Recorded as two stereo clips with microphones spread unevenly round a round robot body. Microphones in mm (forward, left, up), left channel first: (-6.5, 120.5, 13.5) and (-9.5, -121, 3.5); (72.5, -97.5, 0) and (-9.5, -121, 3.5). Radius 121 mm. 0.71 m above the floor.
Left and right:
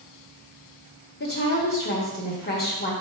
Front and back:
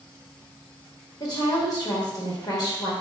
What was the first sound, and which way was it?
A woman speaking, 45° left.